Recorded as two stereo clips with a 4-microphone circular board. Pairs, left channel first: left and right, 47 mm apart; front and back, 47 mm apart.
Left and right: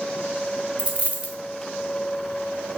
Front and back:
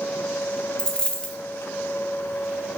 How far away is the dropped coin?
About 0.5 m.